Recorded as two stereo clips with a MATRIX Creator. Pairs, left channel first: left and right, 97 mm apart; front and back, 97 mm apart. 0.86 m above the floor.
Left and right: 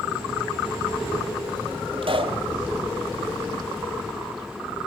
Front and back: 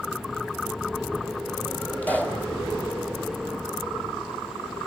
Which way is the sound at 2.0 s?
75° right.